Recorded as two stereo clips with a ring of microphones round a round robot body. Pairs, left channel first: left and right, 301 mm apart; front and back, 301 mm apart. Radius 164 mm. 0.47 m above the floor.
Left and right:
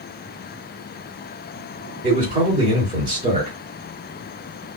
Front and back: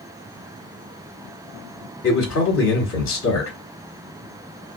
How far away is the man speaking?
About 1.5 m.